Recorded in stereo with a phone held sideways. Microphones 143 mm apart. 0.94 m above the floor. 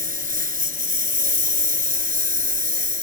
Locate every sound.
0.0 s a lawn mower: 75° right (ahead or behind)